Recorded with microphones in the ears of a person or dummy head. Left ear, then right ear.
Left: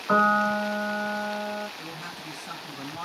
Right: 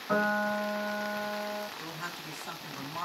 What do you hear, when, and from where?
0.1 s a piano: 45° left (ahead or behind), 1.5 m
1.8 s a woman speaking: 70° right (ahead or behind), 2 m